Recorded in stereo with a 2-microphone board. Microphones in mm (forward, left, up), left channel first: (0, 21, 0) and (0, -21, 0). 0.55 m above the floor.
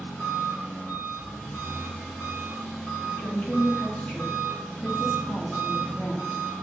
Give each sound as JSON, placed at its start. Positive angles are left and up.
{"t": 0.0, "sound": "an engine running", "side_deg": 5, "distance_m": 1.8}
{"t": 3.0, "sound": "a woman speaking", "side_deg": 20, "distance_m": 0.8}